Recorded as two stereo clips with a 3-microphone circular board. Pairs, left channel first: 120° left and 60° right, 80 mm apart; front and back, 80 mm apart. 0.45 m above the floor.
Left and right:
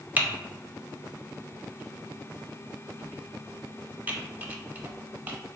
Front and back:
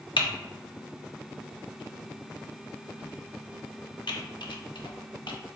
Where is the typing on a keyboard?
10° left, 0.5 m.